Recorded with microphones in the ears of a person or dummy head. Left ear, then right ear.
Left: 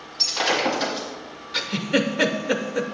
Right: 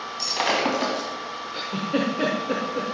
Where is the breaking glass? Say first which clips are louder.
Left 2 dB; 10° right (ahead or behind), 1.8 m.